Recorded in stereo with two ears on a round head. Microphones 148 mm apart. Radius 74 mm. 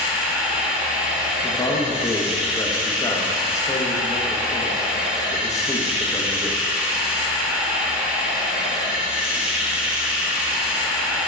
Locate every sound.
0.0 s running water: 5° right (ahead or behind), 0.8 m
1.4 s a man speaking: 20° left (ahead or behind), 0.8 m